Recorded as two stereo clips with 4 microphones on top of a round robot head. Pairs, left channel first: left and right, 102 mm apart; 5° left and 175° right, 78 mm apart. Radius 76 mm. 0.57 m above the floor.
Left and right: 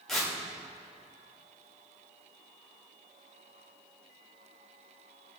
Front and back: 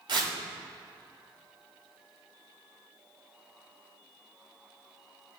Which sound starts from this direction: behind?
Tearing paper, at 0.1 s.